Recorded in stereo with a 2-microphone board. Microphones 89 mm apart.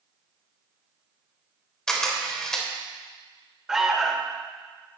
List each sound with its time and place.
1.9 s a camera shutter: 5° left (ahead or behind), 1.1 m
3.7 s an alarm: 5° right (ahead or behind), 0.6 m